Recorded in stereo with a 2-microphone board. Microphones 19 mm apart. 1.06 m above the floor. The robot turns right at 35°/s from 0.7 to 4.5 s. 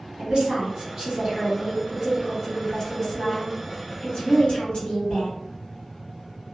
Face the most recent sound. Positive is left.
turn(degrees=80)